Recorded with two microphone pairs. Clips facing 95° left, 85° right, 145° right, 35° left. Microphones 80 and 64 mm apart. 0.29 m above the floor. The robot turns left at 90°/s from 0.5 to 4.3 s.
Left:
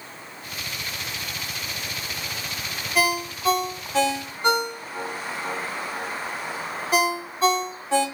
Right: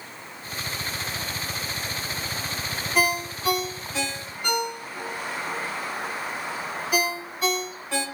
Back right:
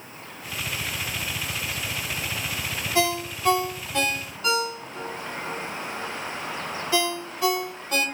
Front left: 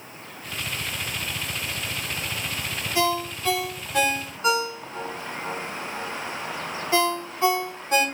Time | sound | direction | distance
3.0 | a ringtone | 170° right | 0.9 m